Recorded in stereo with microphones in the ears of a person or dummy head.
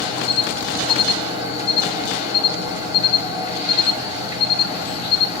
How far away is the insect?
About 2.5 m.